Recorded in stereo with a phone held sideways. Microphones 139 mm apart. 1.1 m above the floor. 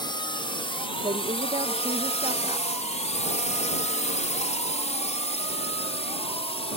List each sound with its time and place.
0.0 s a drone: 35° left (ahead or behind); by 6.8 s 45° left (ahead or behind)
1.0 s a woman speaking: 50° right (ahead or behind)